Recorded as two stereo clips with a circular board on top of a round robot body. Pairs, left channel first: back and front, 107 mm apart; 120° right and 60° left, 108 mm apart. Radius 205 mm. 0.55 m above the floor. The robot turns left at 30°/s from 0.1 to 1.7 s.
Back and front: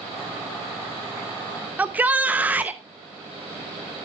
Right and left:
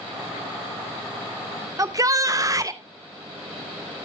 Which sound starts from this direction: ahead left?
A shout, at 1.8 s.